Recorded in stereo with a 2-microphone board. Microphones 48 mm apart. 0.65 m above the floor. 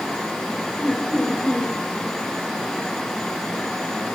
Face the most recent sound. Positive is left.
turn(degrees=5)  # may be behind; listen again after turning